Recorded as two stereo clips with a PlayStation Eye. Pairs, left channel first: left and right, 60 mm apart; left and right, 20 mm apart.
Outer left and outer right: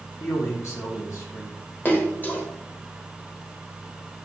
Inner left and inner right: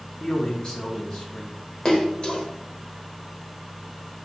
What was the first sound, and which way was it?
A man speaking, 50° left (ahead or behind).